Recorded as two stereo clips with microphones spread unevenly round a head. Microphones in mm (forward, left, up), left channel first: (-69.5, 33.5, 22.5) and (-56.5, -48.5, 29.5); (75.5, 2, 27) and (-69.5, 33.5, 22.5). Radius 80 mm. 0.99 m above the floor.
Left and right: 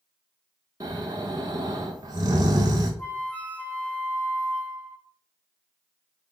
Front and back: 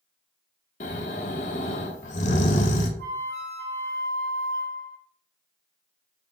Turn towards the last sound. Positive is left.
turn(degrees=170)